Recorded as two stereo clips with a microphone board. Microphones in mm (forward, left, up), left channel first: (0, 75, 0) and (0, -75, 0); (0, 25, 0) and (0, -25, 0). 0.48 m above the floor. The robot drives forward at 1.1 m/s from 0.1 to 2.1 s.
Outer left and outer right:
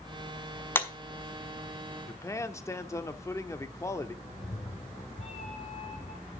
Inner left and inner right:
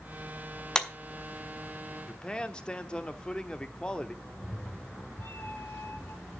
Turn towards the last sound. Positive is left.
turn(degrees=45)  # may be behind; listen again after turning